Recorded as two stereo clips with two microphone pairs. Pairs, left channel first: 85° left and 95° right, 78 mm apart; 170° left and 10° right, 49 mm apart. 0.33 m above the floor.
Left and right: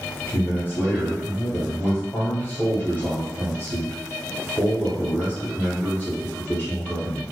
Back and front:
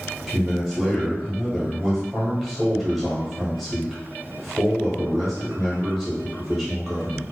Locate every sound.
0.3 s a man speaking: 85° left, 1.1 m